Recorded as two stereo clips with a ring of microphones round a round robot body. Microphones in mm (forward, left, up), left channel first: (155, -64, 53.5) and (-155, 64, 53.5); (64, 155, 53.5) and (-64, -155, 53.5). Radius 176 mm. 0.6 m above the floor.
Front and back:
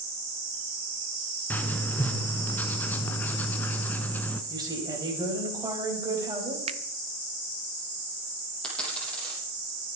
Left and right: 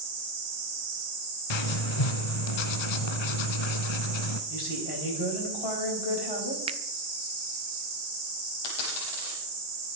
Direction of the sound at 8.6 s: 65° left.